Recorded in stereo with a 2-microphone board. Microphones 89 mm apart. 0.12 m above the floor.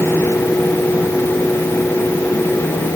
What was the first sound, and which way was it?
Only background noise.